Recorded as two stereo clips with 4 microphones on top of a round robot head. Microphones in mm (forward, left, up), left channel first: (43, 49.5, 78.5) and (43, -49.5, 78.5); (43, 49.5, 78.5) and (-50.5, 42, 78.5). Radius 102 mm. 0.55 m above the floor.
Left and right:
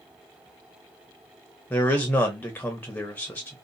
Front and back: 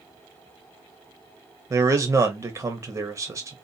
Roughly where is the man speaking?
Behind left.